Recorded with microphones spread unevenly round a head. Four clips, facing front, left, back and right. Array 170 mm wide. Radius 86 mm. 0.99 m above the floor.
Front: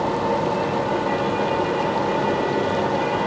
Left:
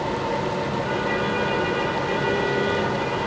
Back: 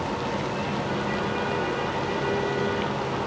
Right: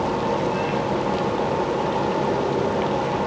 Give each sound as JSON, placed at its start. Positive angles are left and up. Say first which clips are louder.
{"t": 0.0, "sound": "a fan", "louder": "right 3 dB, front 7 dB", "azimuth_deg": -35, "distance_m": 2.0}